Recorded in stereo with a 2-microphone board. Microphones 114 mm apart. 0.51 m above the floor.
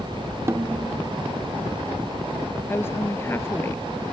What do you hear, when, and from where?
0.5 s a snare drum: 25° right (ahead or behind)
2.7 s a woman speaking: 20° left (ahead or behind)